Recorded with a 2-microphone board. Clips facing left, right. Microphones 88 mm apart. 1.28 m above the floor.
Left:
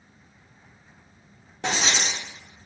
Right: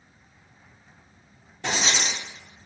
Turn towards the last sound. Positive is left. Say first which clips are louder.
# left 1 dB
turn(degrees=75)  # may be behind; listen again after turning